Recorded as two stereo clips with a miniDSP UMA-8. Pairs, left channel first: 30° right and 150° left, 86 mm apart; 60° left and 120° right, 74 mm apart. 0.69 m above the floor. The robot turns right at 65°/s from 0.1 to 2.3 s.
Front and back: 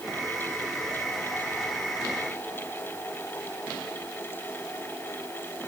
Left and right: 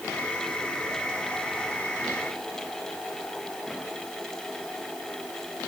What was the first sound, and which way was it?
Only background noise.